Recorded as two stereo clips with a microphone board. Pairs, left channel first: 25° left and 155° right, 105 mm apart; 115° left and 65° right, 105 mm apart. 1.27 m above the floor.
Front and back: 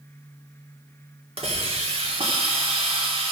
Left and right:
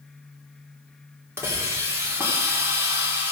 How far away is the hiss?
About 2 m.